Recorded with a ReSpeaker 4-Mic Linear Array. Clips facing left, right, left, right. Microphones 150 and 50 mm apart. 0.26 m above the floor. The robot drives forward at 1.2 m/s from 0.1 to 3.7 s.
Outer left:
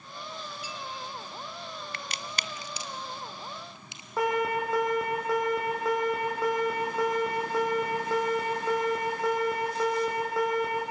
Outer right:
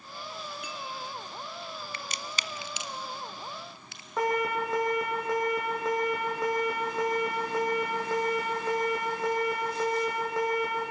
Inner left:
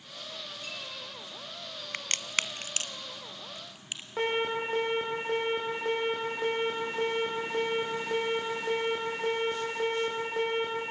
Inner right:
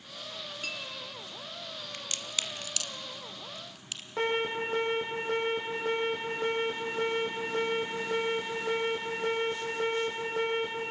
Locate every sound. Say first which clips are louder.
0.6 s a clink: even, inner right 5 dB; 65° right (ahead or behind), 2.5 m
1.9 s a crack: even, inner left 6 dB; 65° left (ahead or behind), 0.8 m; by 4.1 s 20° left (ahead or behind), 2 m
4.2 s an alarm: outer left 1 dB, even; centre (ahead or behind), 8.5 m